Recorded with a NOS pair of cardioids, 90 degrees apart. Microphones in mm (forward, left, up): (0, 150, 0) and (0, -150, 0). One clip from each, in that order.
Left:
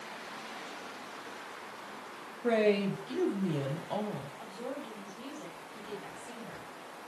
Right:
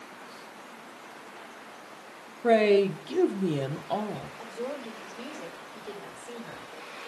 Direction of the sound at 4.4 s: 25° right.